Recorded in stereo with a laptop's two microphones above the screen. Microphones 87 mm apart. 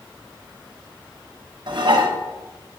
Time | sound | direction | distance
1.7 | dishes clattering | 65° right (ahead or behind) | 1.3 m